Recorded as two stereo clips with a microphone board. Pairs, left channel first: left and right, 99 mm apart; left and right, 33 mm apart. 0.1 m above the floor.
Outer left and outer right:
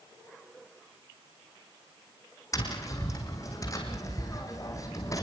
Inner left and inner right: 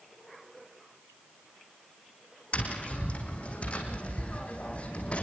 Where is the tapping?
35° left (ahead or behind), 4.5 m.